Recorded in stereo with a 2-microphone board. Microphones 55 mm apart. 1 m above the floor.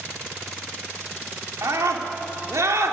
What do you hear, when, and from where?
1.6 s a scream: 75° right (ahead or behind), 2.5 m